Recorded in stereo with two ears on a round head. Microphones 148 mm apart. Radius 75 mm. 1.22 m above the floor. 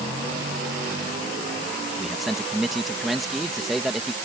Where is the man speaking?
Centre (ahead or behind).